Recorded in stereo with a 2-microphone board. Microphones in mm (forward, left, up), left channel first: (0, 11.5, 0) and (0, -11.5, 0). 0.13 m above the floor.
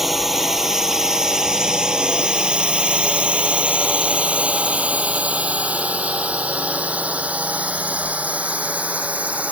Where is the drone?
10° right (ahead or behind); by 9.5 s 75° right (ahead or behind).